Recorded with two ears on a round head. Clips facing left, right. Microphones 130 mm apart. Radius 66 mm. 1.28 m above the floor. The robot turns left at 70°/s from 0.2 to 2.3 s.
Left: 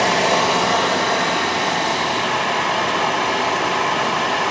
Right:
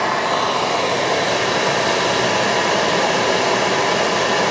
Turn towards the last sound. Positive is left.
turn(degrees=-120)